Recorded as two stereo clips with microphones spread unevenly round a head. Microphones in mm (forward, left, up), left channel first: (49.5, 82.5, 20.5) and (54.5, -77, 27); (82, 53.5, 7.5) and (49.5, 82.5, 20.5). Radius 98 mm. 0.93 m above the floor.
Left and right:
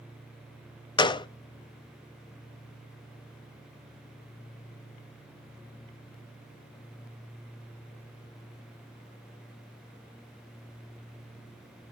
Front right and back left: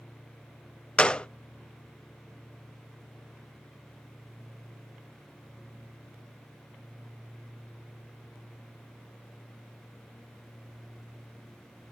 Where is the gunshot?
30° left, 0.6 m.